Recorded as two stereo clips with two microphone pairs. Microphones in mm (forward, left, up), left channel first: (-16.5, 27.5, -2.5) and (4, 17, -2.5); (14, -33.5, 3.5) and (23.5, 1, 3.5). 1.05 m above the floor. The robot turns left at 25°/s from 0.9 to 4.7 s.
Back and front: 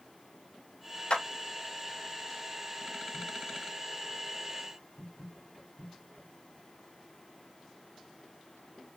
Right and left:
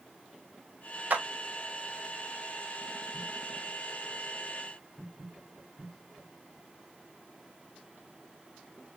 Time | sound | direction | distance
1.1 | a clap | 115° left | 0.9 m